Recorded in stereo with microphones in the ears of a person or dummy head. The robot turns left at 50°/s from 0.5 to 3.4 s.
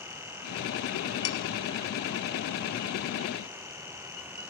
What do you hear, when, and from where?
1.2 s dishes clattering: 20° left (ahead or behind), 0.6 m; by 1.4 s 25° left (ahead or behind), 0.6 m